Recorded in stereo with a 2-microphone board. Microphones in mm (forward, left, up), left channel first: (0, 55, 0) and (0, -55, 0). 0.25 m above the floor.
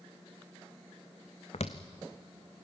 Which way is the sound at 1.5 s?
80° left.